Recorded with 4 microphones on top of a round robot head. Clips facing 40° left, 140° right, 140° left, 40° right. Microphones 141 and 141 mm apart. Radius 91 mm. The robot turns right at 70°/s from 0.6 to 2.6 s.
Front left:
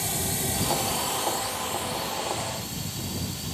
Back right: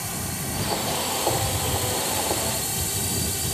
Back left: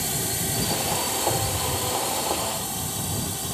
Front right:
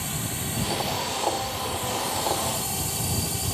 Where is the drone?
95° left; by 3.5 s 125° right.